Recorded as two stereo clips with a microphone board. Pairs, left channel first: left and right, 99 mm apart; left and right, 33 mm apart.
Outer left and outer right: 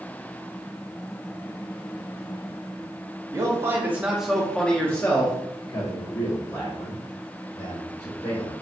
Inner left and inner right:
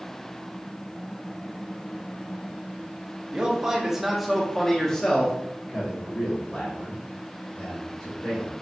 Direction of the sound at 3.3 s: 30° right (ahead or behind).